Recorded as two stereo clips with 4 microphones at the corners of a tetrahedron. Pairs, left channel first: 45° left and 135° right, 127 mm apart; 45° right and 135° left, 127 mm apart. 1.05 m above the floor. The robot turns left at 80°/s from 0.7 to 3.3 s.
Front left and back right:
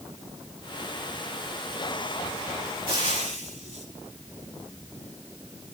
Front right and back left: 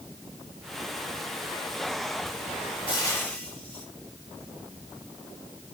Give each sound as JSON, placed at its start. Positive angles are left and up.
{"t": 2.9, "sound": "frying", "azimuth_deg": -90, "distance_m": 4.5}